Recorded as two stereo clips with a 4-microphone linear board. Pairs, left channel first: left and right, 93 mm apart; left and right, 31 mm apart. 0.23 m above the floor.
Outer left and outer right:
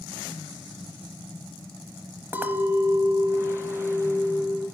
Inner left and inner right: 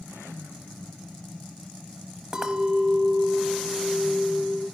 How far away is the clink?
About 0.6 m.